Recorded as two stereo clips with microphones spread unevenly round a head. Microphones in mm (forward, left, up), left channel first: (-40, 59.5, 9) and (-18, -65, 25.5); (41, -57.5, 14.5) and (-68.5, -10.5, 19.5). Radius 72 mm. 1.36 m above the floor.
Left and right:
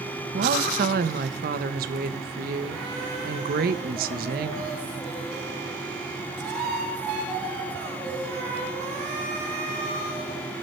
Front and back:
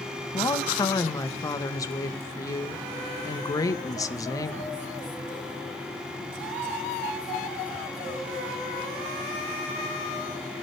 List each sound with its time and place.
0.3 s a woman speaking: 85° right, 1.6 m